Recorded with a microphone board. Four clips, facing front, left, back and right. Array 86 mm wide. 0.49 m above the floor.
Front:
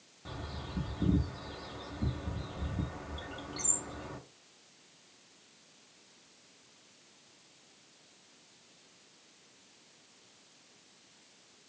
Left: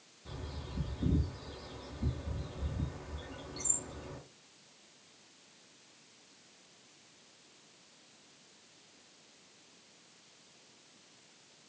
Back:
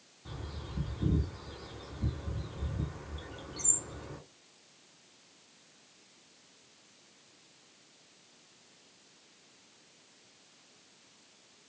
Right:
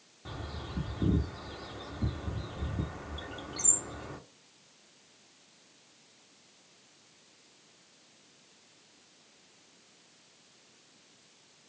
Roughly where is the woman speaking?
I don't hear a woman speaking.